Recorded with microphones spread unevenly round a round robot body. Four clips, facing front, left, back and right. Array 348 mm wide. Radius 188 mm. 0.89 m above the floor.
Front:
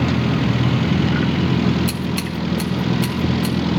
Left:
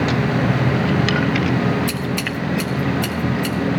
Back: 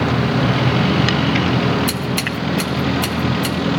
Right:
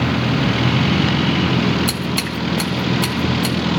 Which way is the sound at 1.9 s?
125° right.